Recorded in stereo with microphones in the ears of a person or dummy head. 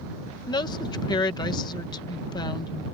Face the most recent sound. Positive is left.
turn(degrees=25)  # may be behind; listen again after turning